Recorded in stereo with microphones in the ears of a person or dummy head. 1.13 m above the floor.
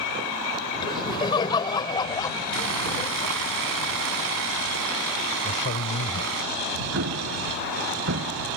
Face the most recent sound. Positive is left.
turn(degrees=-65)  # may be behind; listen again after turning